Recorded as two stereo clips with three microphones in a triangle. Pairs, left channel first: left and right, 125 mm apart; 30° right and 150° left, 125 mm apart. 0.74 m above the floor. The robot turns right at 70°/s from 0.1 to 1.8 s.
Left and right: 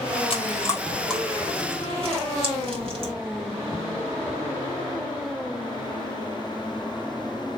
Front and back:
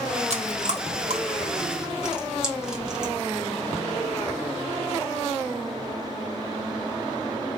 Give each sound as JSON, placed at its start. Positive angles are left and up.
{"t": 0.3, "sound": "chewing", "azimuth_deg": 125, "distance_m": 1.4}